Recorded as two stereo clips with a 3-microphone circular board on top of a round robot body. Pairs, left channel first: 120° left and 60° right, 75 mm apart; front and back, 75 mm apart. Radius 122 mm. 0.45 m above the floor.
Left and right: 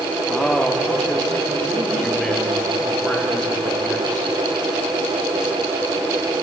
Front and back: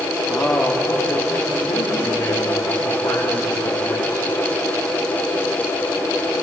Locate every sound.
0.3 s a man speaking: 50° left, 1.5 m; by 4.3 s 45° left, 3 m